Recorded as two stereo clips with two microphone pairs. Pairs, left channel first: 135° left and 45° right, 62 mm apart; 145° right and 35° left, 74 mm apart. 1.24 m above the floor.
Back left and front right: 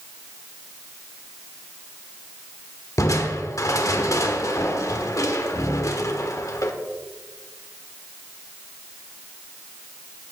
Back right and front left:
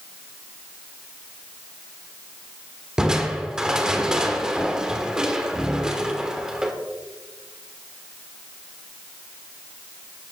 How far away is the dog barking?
I don't hear a dog barking.